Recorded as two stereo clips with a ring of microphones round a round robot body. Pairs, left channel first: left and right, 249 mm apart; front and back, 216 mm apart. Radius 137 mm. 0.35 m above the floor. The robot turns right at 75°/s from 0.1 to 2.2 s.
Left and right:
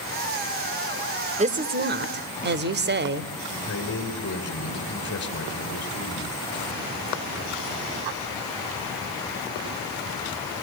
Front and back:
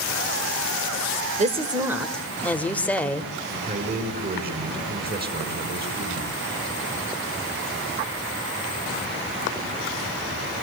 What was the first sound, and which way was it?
A woman speaking, 140° right.